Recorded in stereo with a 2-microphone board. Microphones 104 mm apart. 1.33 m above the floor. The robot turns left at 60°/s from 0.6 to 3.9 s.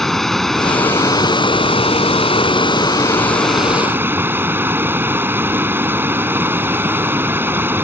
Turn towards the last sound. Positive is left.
turn(degrees=-20)